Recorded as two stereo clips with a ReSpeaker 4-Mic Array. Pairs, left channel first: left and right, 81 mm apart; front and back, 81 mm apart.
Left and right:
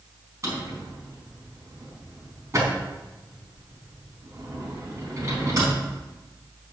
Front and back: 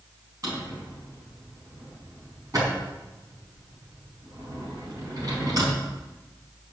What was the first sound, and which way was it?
A drawer, 140° right.